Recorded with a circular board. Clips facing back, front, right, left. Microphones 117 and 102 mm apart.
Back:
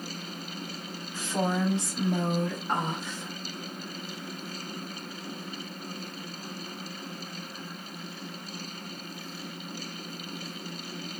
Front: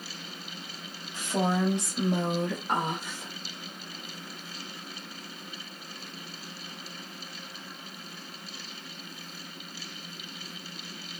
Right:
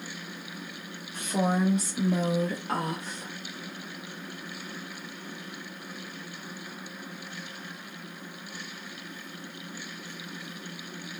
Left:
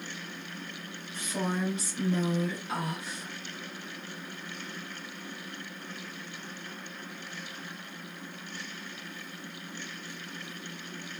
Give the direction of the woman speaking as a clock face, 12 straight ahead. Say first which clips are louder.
Front 1 dB, right 5 dB; 2 o'clock.